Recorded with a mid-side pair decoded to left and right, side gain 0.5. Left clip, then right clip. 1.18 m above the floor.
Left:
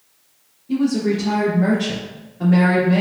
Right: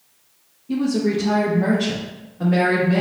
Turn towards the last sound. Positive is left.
turn(degrees=-10)